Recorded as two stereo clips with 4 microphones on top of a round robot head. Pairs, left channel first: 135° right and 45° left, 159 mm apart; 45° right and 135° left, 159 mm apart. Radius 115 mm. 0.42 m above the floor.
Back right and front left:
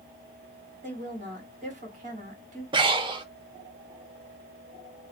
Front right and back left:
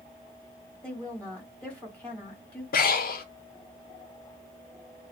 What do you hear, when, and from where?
0.8 s a woman speaking: 35° left, 1.9 m
2.7 s breathing: 15° right, 0.6 m